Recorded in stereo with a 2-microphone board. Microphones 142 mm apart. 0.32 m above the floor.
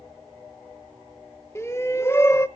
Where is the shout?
20° left (ahead or behind), 0.9 m.